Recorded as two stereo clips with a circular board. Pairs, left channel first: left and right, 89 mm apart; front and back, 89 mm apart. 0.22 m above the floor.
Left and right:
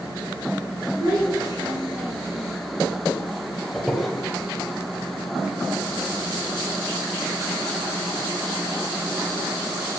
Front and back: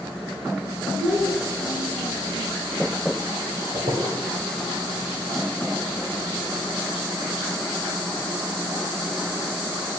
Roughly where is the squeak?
Behind.